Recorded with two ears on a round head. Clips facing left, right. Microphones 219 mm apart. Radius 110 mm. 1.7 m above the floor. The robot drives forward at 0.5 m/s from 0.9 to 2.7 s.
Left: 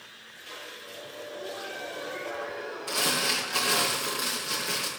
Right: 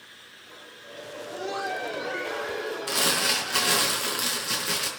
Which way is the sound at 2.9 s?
30° right (ahead or behind).